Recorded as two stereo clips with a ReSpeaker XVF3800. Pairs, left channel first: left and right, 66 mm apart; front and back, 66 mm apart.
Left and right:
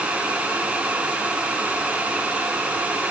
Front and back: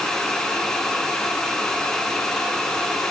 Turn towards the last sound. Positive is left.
No sound to turn to.